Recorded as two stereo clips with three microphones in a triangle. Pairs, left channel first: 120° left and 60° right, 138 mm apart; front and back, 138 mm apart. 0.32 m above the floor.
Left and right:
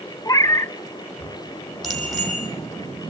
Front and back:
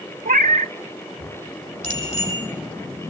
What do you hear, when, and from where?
0.2 s a cat meowing: straight behind, 0.5 m
1.8 s a bicycle bell: 30° left, 8 m